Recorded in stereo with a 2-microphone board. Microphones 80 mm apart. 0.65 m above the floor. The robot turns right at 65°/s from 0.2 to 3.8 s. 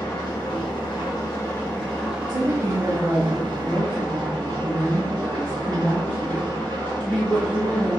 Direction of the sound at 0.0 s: 55° left.